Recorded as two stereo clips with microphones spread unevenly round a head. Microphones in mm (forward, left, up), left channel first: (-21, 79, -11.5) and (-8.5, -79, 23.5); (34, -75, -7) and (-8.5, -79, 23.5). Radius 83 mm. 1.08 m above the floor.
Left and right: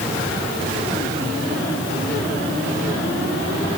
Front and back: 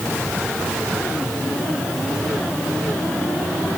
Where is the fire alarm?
I don't hear a fire alarm.